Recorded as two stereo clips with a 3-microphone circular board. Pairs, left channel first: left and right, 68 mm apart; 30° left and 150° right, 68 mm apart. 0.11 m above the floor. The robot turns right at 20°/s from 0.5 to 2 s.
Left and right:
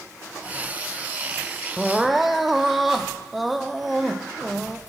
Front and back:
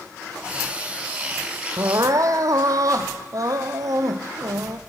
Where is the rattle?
I don't hear a rattle.